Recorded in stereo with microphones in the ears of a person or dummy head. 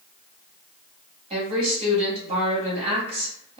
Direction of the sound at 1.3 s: 40° right (ahead or behind).